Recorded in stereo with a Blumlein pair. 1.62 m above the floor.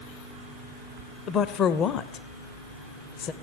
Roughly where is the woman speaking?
Ahead left.